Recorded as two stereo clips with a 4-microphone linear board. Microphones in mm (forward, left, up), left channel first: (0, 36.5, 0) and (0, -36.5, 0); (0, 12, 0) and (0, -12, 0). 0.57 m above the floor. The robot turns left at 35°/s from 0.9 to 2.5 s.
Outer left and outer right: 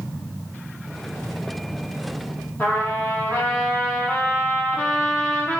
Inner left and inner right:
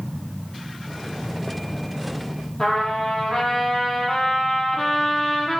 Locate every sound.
2.6 s a trumpet: 30° left (ahead or behind), 8.5 m